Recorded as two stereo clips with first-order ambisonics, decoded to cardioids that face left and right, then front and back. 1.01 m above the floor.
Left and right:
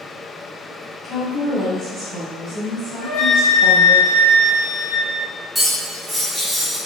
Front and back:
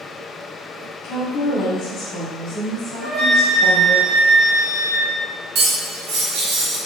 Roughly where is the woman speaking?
Ahead.